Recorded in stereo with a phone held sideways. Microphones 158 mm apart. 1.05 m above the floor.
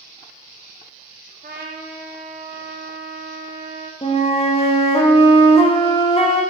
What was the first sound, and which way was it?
A trumpet, 65° right (ahead or behind).